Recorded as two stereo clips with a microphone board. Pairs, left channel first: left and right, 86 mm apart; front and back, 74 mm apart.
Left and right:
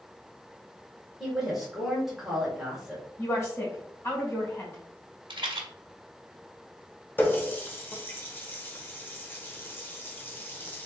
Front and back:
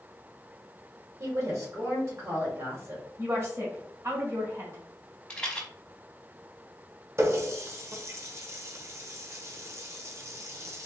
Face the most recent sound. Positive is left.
turn(degrees=150)